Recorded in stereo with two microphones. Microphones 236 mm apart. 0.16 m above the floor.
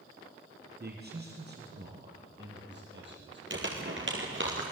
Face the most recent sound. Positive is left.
turn(degrees=-55)  # may be behind; listen again after turning